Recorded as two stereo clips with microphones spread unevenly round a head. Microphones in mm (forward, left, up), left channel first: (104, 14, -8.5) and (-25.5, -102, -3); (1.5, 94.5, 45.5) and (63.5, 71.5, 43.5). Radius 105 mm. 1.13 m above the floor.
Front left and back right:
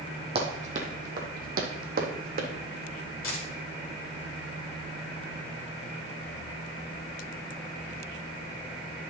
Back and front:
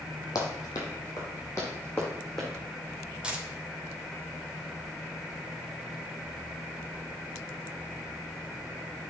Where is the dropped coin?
55° left, 2 m.